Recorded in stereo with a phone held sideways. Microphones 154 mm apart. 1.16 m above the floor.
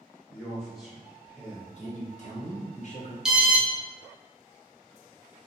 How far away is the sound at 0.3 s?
About 1.6 m.